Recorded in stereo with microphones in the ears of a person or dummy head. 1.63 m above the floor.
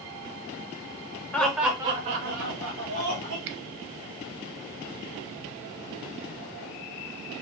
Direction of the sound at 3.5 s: 65° right (ahead or behind).